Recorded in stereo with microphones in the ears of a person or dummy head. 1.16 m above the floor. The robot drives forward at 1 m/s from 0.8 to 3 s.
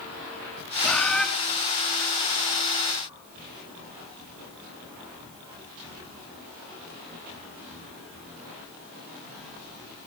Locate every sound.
0.8 s a bird: 5° left (ahead or behind), 1.9 m; by 1.2 s centre (ahead or behind), 2.5 m